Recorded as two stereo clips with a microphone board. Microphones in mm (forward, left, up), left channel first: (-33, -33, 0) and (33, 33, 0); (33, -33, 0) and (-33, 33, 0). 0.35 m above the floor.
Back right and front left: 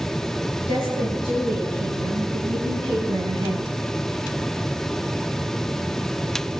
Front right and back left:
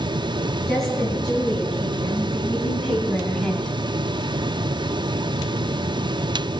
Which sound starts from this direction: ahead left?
A woman speaking, at 0.7 s.